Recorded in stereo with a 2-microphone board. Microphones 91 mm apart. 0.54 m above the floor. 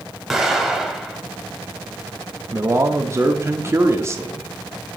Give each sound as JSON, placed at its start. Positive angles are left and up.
{"t": 0.3, "sound": "an explosion", "side_deg": 0, "distance_m": 1.0}
{"t": 2.5, "sound": "a man speaking", "side_deg": -30, "distance_m": 0.7}